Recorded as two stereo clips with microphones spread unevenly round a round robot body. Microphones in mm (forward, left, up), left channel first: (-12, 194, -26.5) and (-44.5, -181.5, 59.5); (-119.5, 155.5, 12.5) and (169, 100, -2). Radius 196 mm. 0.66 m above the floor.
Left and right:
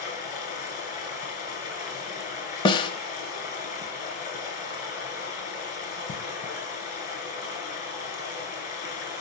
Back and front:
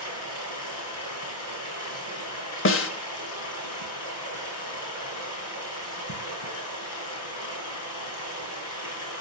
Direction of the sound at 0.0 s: 155° left.